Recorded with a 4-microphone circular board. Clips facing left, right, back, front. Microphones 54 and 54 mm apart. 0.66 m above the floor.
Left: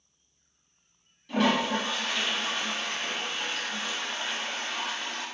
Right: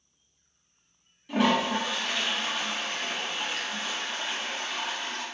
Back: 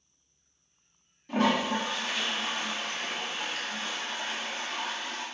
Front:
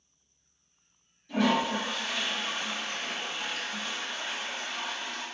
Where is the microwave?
I don't hear a microwave.